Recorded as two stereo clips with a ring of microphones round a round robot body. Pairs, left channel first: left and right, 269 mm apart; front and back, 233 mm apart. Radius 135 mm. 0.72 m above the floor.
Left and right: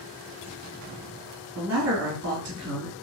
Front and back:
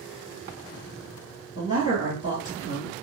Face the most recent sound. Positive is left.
turn(degrees=-65)